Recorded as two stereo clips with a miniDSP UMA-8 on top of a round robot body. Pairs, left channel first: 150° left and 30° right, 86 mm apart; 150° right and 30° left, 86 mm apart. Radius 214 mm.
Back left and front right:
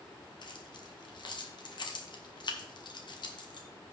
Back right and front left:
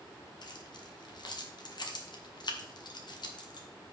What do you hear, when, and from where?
0.4 s keys jangling: 175° left, 1.5 m